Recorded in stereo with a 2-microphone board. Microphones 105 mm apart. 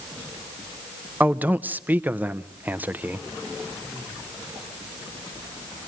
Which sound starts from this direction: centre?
A man speaking, at 1.2 s.